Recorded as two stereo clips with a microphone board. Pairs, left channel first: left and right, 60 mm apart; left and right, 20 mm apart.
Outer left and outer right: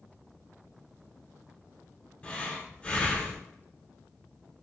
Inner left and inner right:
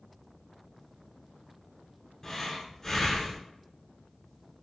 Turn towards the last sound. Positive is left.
turn(degrees=25)  # may be behind; listen again after turning